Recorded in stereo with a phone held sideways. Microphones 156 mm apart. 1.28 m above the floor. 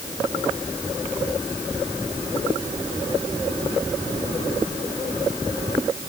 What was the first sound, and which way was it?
Only background noise.